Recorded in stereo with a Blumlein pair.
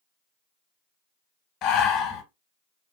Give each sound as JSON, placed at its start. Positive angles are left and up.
{"t": 1.6, "sound": "breathing", "azimuth_deg": 30, "distance_m": 1.0}